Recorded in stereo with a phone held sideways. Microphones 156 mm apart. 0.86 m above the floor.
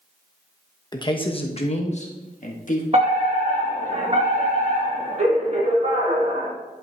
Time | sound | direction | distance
0.9 | a man speaking | 25° left (ahead or behind) | 1.1 m
2.9 | a fire alarm | 45° right (ahead or behind) | 2 m